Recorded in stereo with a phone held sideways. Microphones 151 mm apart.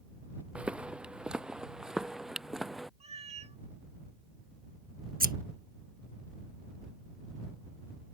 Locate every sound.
0.6 s footsteps: 5° right (ahead or behind); by 2.9 s centre (ahead or behind)
3.0 s a cat meowing: 45° right (ahead or behind)
5.2 s scissors: 75° right (ahead or behind)